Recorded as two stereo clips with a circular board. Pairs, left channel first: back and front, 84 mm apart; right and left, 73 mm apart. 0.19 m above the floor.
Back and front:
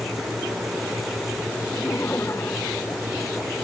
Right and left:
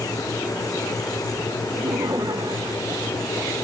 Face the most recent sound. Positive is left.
turn(degrees=120)